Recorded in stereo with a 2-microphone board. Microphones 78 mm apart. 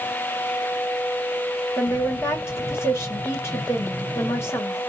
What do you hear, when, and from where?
1.8 s a woman speaking: 30° left (ahead or behind), 1.5 m